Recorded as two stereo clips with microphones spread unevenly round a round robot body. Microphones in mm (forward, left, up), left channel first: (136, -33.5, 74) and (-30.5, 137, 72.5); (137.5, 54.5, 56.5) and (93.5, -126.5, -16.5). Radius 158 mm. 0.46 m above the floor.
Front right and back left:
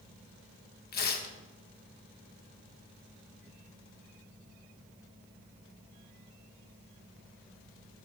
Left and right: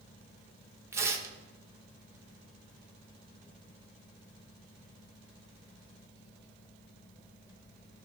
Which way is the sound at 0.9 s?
70° right.